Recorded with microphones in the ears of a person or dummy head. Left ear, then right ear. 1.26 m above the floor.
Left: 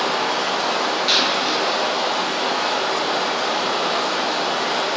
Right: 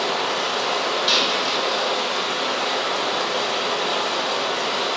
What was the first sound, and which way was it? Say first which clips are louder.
Running water: left 2 dB; 70° right (ahead or behind).